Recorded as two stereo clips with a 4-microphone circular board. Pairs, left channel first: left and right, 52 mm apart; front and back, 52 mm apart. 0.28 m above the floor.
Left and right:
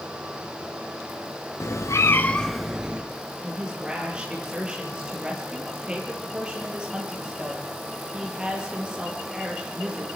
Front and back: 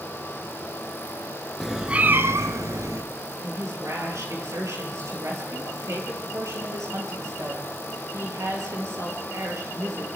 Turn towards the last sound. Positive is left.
turn(degrees=-160)